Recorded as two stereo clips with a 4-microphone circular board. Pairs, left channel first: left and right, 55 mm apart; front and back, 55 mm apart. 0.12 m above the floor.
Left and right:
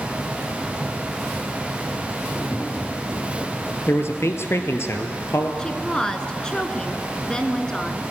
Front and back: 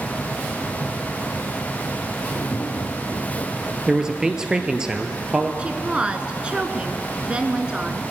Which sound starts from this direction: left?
A man speaking, at 3.9 s.